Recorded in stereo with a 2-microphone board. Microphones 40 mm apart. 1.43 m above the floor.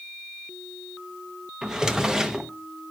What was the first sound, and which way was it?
A drawer, 20° right (ahead or behind).